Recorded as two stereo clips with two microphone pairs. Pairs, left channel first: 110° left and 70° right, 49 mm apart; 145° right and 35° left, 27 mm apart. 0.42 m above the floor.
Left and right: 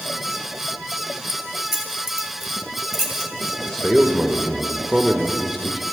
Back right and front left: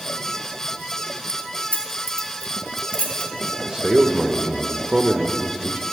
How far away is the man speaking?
About 0.9 m.